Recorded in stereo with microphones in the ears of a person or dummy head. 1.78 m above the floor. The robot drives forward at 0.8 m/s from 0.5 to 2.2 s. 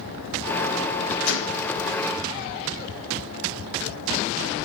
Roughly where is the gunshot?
Left.